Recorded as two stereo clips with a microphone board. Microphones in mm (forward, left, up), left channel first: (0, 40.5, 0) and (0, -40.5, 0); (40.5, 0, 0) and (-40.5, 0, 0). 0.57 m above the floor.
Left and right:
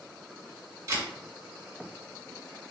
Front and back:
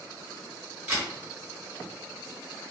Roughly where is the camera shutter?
Behind right.